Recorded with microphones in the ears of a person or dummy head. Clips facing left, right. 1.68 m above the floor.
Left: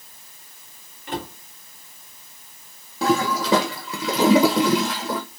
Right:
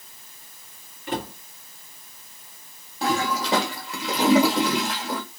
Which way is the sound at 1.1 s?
45° right (ahead or behind).